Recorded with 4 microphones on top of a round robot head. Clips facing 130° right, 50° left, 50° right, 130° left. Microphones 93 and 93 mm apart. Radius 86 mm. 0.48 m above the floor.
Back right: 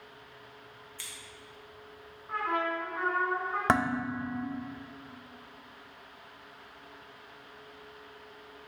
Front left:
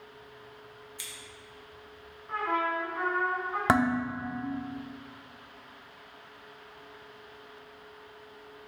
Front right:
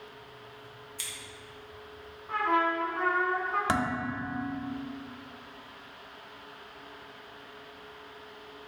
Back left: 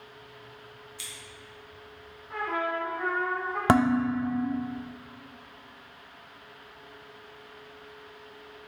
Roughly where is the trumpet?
Ahead right.